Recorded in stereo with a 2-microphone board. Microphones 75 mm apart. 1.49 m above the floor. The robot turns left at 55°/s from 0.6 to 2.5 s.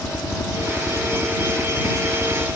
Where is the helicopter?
55° left; by 2.6 s 50° right.